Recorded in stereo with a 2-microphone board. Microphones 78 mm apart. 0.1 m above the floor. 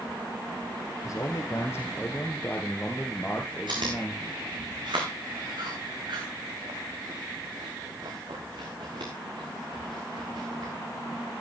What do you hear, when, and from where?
1.1 s a man speaking: 40° left (ahead or behind), 2.0 m; by 4.4 s 5° left (ahead or behind), 3 m
3.7 s chewing: 70° right (ahead or behind), 5.5 m